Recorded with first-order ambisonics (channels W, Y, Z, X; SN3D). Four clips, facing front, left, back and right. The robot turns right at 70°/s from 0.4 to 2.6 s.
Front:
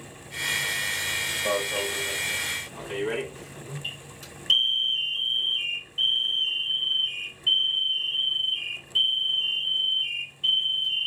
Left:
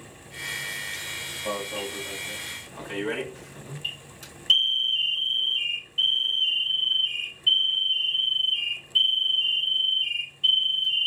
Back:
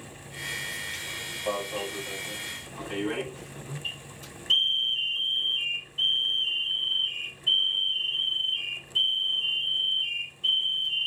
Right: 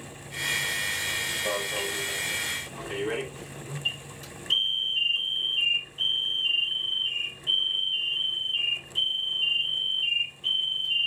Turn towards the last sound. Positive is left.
turn(degrees=65)